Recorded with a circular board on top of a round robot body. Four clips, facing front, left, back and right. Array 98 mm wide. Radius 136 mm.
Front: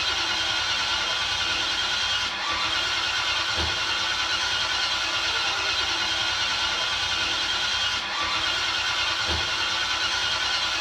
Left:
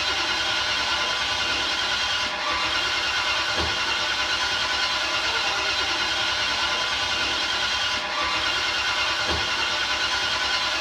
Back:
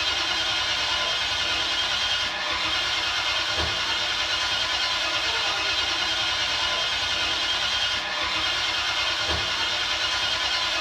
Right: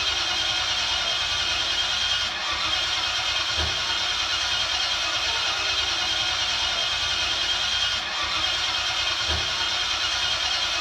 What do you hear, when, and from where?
0.0 s an engine running: 90° left, 1.2 m